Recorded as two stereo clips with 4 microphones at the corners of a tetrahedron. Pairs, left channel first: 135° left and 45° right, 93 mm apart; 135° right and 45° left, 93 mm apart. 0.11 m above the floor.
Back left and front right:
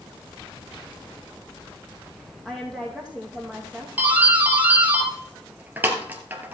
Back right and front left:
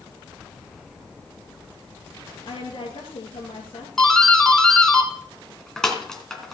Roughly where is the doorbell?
Ahead right.